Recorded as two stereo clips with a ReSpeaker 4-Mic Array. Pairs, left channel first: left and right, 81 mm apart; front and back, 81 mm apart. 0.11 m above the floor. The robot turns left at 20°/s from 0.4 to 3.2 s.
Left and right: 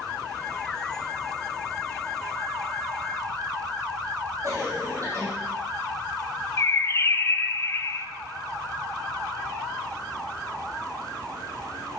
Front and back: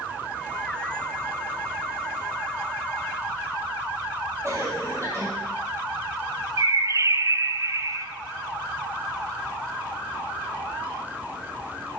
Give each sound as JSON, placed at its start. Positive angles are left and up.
{"t": 4.4, "sound": "a cough", "azimuth_deg": -135, "distance_m": 3.5}
{"t": 6.6, "sound": "a bird", "azimuth_deg": 140, "distance_m": 0.7}